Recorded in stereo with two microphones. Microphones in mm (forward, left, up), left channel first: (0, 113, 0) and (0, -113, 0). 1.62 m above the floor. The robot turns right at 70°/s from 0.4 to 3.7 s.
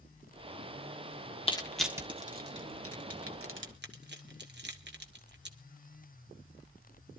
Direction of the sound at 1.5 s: 25° left (ahead or behind).